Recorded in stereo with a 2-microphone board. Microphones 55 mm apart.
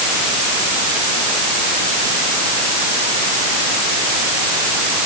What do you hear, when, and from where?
Only background noise.